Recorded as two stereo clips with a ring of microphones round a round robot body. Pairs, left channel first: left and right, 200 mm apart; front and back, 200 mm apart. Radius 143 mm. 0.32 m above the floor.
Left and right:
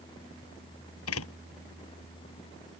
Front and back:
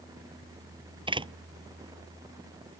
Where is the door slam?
115° left.